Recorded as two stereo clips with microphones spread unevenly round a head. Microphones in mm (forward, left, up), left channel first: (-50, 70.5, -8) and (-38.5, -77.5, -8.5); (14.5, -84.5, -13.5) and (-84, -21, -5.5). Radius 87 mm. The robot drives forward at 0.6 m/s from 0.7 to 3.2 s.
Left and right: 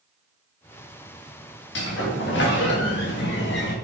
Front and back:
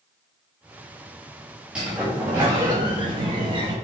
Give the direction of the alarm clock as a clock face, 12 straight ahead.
I don't hear an alarm clock.